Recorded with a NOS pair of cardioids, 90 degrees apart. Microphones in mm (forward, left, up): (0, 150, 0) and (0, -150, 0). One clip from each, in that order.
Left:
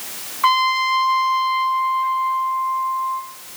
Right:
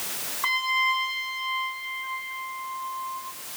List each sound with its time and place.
0.4 s a trumpet: 40° left, 1.3 m